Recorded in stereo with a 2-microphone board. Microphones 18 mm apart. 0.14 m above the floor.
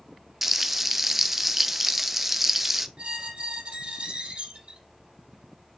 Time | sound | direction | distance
0.4 | frying | 15° right (ahead or behind) | 0.5 m
3.0 | a squeak | 70° right (ahead or behind) | 2 m